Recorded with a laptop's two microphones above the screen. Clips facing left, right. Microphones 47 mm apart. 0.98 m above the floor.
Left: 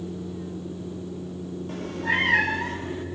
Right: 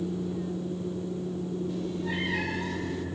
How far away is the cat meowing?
About 0.9 m.